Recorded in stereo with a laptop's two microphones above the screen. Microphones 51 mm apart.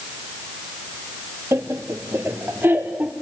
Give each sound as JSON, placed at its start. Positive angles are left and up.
{"t": 1.5, "sound": "laughter", "side_deg": -65, "distance_m": 1.6}